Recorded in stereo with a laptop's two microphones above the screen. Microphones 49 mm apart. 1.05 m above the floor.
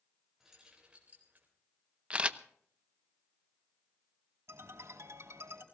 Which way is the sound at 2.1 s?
25° right (ahead or behind).